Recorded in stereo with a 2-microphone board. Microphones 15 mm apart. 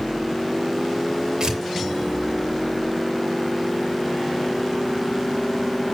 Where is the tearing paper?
50° right (ahead or behind), 4 m.